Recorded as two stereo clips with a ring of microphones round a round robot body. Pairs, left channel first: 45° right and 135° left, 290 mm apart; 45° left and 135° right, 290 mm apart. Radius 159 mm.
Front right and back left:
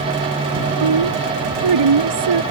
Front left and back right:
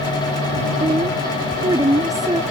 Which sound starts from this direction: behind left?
A woman speaking, at 0.8 s.